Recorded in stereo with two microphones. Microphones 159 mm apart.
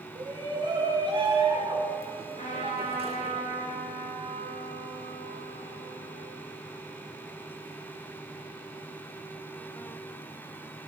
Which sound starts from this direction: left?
A trumpet, at 2.4 s.